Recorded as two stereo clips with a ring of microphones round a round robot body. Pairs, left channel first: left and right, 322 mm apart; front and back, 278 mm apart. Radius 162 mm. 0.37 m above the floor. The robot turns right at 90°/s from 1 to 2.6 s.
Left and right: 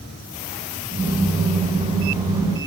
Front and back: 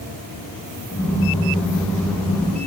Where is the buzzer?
No buzzer in this recording.